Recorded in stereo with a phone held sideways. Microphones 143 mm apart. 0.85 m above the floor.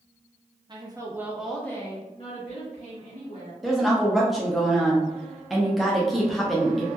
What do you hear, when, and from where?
0.7 s a woman speaking: 35° right (ahead or behind), 0.8 m; by 3.5 s 65° left (ahead or behind), 1.3 m
3.6 s a woman speaking: centre (ahead or behind), 0.6 m